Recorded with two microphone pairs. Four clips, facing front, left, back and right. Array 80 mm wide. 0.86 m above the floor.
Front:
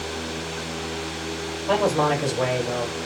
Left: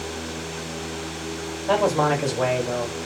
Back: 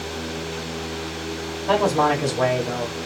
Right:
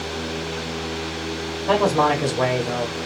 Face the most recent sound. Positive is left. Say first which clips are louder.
# right 2 dB, back 2 dB
turn(degrees=-110)